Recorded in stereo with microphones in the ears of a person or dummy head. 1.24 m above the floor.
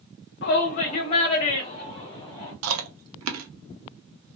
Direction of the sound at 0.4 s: 50° left (ahead or behind).